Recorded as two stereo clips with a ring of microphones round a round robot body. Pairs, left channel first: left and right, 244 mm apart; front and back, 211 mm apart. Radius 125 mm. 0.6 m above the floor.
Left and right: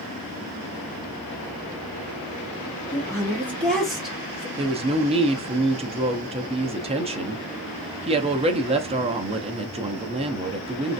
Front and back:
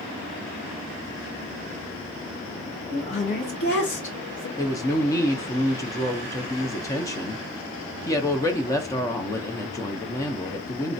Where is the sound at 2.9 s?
30° left, 1.3 m; by 4.5 s 5° right, 2.5 m.